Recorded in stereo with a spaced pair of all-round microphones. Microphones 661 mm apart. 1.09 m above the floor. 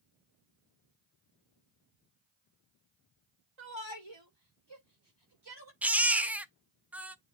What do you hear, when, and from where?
3.6 s a shout: 45° right (ahead or behind), 3 m; by 5.7 s 35° right (ahead or behind), 4 m
5.8 s a baby crying: centre (ahead or behind), 0.5 m